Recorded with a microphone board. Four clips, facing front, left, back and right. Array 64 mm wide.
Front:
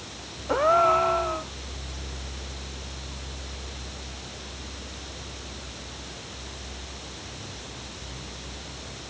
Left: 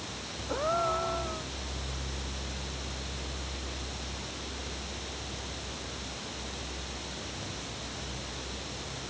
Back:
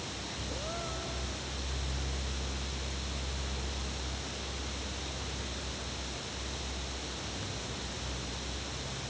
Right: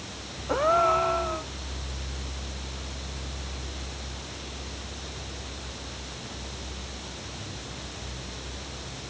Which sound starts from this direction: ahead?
A gasp, at 0.5 s.